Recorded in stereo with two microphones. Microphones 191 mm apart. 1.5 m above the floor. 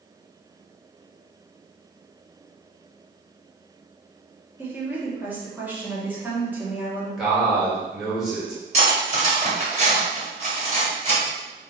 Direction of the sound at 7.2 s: 5° right (ahead or behind).